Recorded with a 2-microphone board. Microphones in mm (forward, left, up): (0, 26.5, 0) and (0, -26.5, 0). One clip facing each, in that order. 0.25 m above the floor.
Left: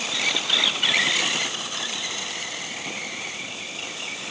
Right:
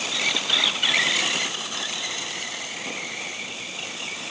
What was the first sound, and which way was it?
Only background noise.